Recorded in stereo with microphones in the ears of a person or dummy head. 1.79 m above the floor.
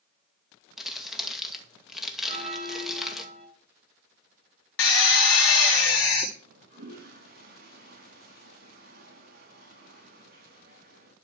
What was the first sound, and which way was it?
Crumpling, centre (ahead or behind).